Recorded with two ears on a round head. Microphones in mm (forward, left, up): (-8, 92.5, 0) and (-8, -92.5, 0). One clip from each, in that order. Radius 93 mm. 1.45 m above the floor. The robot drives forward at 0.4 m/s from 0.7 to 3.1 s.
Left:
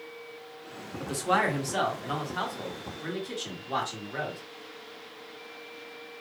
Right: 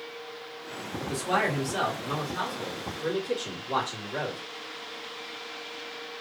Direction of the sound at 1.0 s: 30° left (ahead or behind).